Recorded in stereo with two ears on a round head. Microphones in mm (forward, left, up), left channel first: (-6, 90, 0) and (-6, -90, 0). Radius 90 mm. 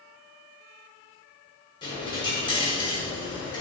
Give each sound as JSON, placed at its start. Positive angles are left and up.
{"t": 1.8, "sound": "a dropped coin", "side_deg": 25, "distance_m": 0.8}